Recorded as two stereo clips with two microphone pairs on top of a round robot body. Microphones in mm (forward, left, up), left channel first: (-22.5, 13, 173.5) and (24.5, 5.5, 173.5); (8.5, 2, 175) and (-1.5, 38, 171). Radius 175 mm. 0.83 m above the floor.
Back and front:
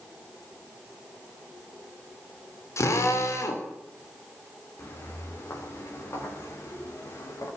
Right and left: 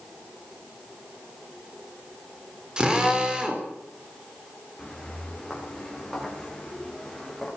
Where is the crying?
I don't hear crying.